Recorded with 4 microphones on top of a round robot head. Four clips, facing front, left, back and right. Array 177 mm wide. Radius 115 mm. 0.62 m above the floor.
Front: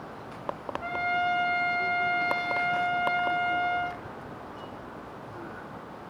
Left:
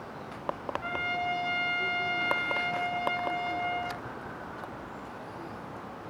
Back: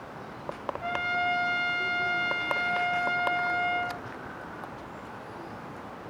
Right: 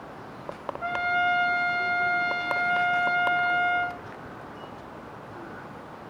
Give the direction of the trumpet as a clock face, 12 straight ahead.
3 o'clock.